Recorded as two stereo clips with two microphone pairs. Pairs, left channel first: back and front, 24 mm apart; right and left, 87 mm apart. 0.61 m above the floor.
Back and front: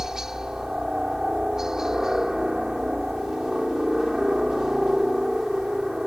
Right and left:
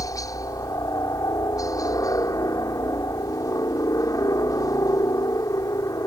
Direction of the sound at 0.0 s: 65° right.